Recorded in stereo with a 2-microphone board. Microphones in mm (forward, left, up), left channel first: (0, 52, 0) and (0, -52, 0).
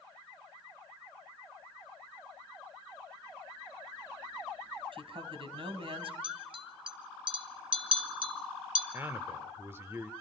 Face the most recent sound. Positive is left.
turn(degrees=-25)  # may be behind; listen again after turning